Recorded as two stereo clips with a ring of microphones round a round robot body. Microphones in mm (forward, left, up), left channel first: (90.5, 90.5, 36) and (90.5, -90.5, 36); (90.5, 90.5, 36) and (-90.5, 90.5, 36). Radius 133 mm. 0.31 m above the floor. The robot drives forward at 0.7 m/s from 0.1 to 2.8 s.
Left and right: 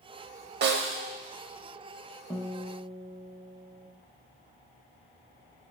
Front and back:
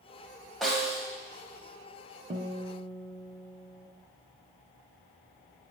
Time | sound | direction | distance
0.6 | a snare drum | 90° right | 0.6 m
2.3 | a guitar | 160° left | 0.7 m